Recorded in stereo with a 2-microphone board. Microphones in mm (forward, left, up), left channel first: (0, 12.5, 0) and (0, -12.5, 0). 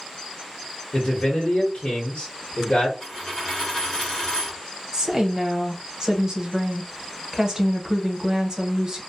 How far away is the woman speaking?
About 0.9 m.